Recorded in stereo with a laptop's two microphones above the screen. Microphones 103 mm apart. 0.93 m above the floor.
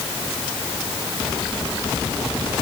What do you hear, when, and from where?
Only background noise.